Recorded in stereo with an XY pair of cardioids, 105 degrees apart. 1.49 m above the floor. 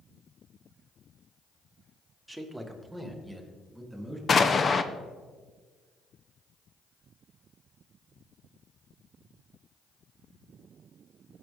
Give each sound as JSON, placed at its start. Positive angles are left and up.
{"t": 2.3, "sound": "a man speaking", "azimuth_deg": -5, "distance_m": 1.4}
{"t": 4.3, "sound": "an explosion", "azimuth_deg": 35, "distance_m": 0.7}